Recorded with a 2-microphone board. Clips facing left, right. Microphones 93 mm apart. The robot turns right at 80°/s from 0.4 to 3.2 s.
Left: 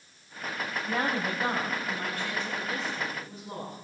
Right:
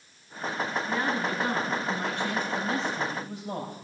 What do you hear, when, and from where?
0.9 s a woman speaking: 100° left, 3.5 m; by 3.8 s 75° right, 3.5 m